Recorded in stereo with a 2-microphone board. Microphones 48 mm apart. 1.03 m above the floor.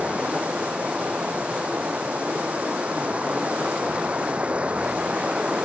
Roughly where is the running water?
Right.